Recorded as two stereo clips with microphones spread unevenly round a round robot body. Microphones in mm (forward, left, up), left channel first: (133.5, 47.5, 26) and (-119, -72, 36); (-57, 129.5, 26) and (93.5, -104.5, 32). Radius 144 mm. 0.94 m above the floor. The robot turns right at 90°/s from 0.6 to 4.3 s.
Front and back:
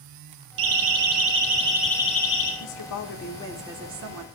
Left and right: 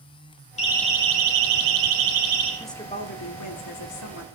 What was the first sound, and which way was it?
A siren, 170° right.